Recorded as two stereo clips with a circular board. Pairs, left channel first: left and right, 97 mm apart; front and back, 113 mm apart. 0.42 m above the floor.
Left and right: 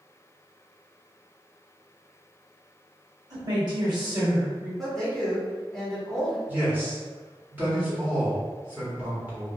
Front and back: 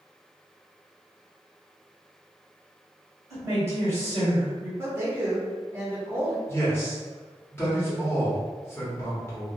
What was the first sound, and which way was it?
A woman speaking, 120° right.